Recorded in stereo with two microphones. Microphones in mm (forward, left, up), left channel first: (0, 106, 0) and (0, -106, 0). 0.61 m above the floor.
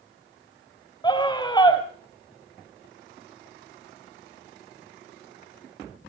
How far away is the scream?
About 3 m.